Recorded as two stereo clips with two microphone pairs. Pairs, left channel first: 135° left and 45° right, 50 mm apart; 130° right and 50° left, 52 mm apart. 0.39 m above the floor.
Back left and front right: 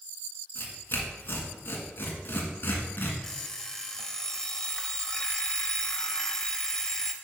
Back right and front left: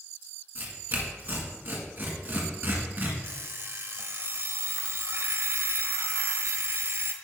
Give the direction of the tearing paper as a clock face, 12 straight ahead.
9 o'clock.